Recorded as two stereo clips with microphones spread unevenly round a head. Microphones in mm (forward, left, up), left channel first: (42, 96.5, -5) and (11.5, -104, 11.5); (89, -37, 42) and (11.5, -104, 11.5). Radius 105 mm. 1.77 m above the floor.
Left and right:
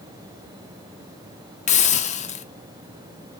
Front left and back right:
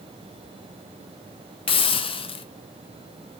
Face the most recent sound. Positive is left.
turn(degrees=25)